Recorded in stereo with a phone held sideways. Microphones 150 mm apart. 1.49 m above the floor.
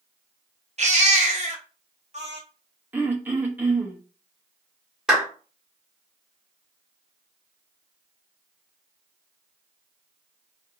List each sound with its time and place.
0.8 s a baby crying: 50° right (ahead or behind), 0.6 m
2.9 s throat clearing: 10° right (ahead or behind), 0.6 m
5.1 s a clap: 5° right (ahead or behind), 1.3 m